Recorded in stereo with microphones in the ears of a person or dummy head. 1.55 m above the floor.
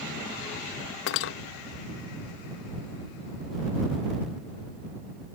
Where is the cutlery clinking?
60° left (ahead or behind).